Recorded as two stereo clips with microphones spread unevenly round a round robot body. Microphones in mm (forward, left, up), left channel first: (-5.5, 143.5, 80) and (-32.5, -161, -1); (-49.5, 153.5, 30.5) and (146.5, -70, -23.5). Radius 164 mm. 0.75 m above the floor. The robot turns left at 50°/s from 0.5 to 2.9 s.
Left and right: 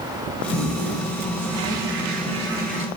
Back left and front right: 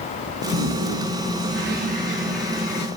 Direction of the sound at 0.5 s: 50° right.